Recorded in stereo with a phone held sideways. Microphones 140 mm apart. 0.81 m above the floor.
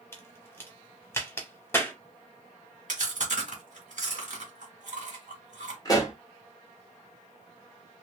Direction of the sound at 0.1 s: 15° left (ahead or behind).